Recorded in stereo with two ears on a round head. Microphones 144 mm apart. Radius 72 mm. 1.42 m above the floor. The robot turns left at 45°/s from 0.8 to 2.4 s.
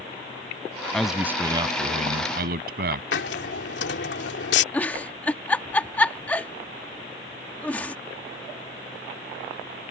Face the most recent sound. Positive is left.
turn(degrees=10)  # may be behind; listen again after turning